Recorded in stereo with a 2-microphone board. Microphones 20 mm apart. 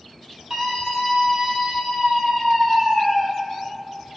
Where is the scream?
35° right (ahead or behind), 2.5 m; by 3.3 s 45° right (ahead or behind), 5 m.